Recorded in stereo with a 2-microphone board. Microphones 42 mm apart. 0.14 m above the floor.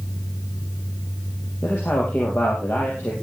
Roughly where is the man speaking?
Left.